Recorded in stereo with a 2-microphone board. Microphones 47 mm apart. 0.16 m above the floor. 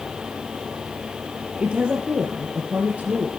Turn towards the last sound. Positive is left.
turn(degrees=-35)  # may be behind; listen again after turning